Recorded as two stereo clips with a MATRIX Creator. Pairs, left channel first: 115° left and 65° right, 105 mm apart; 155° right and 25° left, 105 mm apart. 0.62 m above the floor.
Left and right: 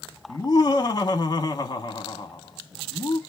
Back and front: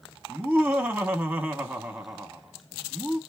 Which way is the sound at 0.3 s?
100° left.